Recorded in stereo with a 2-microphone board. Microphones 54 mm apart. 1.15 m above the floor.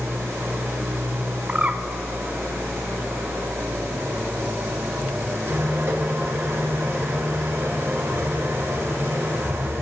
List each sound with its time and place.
0.0 s an engine running: 50° right (ahead or behind), 2.5 m
1.5 s a bird: 25° right (ahead or behind), 0.7 m